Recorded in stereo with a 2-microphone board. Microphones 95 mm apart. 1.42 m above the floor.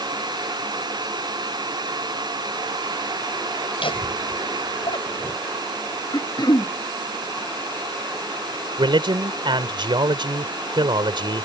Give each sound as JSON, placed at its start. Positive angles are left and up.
{"t": 3.8, "sound": "laughter", "side_deg": 65}
{"t": 6.1, "sound": "throat clearing", "side_deg": 45}
{"t": 8.8, "sound": "a man speaking", "side_deg": -55}